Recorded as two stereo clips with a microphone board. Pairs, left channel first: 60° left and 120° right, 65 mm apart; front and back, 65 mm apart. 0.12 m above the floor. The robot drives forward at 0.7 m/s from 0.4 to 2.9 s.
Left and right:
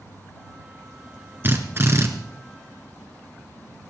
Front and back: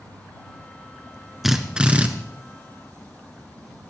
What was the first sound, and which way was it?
A drill, 95° right.